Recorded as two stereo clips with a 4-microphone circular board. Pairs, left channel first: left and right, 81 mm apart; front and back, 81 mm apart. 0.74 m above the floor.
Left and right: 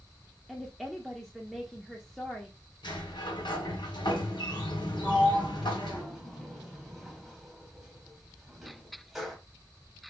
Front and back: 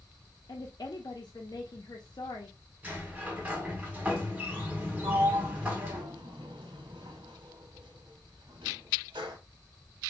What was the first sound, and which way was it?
A woman speaking, straight ahead.